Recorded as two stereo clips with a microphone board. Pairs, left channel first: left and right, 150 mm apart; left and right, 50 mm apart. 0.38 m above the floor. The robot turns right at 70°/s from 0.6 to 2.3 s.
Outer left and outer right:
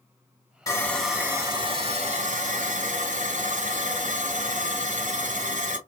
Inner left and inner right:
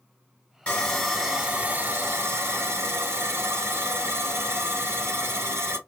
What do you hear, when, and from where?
0.7 s sawing: 150° left, 2 m; by 5.8 s 95° right, 2 m